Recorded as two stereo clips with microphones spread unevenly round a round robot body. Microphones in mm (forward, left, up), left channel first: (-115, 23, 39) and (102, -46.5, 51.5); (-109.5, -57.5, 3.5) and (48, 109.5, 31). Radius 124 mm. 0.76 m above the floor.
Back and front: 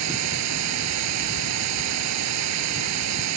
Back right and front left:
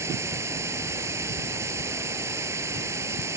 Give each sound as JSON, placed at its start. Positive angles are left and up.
{"t": 0.0, "sound": "running water", "azimuth_deg": -30}